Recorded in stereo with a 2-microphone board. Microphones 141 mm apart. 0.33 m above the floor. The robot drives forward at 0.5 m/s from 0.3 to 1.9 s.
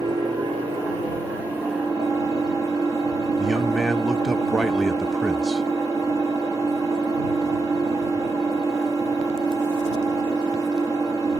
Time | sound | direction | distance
0.0 | an engine running | 30° right (ahead or behind) | 3.5 m
3.4 | a man speaking | centre (ahead or behind) | 0.9 m